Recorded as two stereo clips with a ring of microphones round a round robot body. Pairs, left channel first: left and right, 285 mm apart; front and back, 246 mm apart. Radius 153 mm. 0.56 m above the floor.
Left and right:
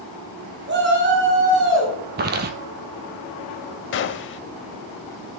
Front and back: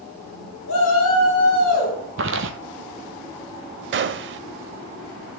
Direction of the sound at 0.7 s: 40° right.